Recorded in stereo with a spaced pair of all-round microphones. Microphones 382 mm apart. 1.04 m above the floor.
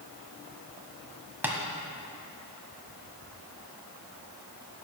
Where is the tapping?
5° right (ahead or behind), 1.2 m.